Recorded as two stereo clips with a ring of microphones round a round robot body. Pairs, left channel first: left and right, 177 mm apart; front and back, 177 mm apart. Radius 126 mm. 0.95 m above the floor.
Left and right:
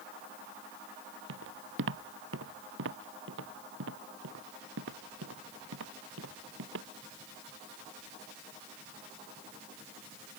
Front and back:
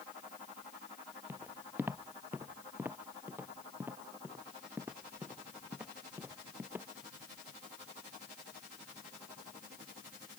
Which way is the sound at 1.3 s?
95° right.